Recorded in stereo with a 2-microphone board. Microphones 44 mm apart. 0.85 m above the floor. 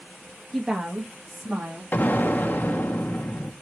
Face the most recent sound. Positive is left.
turn(degrees=45)  # may be behind; listen again after turning